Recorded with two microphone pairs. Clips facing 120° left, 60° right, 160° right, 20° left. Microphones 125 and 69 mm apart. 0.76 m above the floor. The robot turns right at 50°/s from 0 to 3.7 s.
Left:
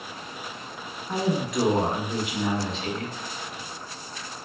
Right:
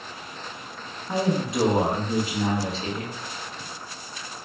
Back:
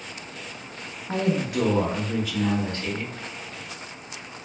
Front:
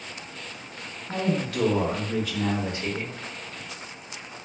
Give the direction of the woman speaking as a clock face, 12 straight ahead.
4 o'clock.